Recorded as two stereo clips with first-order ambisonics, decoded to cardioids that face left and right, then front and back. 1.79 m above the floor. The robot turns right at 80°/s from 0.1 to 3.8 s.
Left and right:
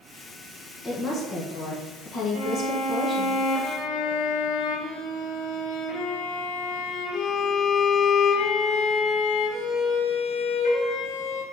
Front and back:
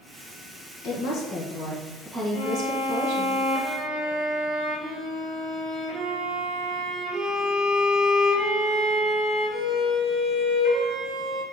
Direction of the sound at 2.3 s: 5° left.